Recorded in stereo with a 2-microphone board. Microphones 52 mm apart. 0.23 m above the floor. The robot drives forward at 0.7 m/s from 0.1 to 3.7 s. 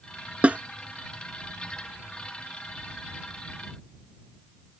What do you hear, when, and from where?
0.4 s a snare drum: 30° right (ahead or behind)